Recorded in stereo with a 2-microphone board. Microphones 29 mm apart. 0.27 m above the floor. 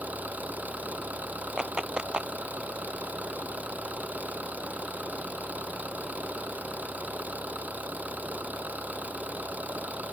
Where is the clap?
35° right (ahead or behind).